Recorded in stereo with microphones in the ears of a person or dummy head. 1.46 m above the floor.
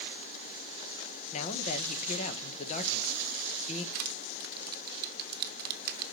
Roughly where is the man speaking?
Left.